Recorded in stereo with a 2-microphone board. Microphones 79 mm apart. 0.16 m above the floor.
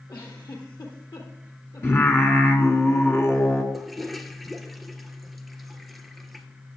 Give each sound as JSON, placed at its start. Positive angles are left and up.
{"t": 0.1, "sound": "a giggle", "side_deg": 55, "distance_m": 3.5}
{"t": 1.8, "sound": "singing", "side_deg": 35, "distance_m": 1.7}
{"t": 3.7, "sound": "a toilet flushing", "side_deg": 0, "distance_m": 1.2}